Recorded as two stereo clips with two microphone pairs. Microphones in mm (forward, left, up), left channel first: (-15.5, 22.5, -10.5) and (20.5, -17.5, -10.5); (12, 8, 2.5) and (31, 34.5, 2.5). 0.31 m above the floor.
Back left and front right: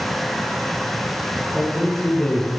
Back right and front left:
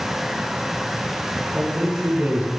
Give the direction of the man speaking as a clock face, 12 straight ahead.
10 o'clock.